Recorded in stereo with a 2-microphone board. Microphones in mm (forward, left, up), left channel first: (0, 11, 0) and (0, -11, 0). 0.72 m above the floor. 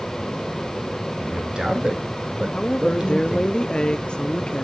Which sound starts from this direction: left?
A woman speaking, at 2.5 s.